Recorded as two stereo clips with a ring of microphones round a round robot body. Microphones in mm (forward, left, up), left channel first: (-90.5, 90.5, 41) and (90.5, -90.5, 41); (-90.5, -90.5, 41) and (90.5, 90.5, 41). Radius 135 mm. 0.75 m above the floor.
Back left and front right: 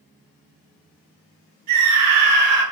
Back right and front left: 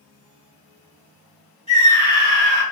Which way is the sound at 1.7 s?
65° right.